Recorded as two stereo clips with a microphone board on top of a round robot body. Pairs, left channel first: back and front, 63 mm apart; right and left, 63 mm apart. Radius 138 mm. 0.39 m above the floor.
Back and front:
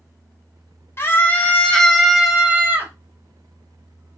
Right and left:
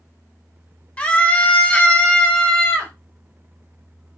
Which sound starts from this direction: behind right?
A scream, at 1.0 s.